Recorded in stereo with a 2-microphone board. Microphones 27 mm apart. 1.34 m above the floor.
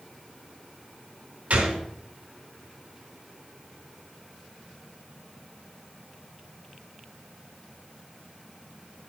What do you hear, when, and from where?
1.5 s a gunshot: 75° right (ahead or behind), 3.5 m